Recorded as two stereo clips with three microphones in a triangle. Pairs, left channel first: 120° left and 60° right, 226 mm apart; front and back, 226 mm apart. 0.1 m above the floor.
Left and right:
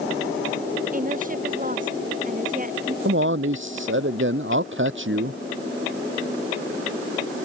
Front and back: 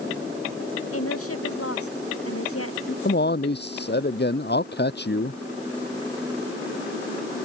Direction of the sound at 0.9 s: 5° right.